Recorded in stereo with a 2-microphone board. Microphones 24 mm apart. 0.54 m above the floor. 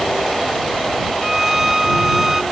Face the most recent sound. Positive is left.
turn(degrees=-20)  # may be behind; listen again after turning